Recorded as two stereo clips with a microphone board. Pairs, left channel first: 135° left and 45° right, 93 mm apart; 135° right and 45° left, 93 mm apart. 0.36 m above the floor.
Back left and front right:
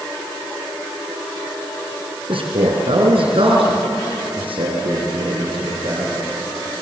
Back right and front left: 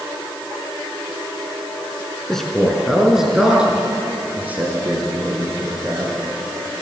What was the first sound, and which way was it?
A man speaking, 50° right.